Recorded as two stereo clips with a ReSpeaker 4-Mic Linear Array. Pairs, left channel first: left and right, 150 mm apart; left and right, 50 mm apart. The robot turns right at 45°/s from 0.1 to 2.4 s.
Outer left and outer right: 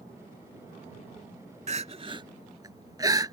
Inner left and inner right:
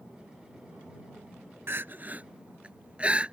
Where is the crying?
55° right (ahead or behind); by 3.3 s 25° right (ahead or behind).